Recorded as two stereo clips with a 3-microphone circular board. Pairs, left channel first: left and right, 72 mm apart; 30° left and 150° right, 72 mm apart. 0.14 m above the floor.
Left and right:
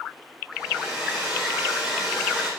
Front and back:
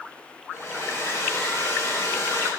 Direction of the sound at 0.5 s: 15° right.